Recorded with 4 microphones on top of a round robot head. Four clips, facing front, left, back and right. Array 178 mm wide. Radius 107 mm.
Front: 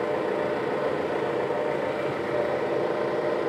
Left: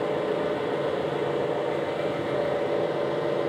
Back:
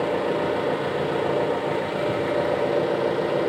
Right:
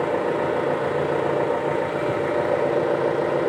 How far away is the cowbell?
No cowbell in this recording.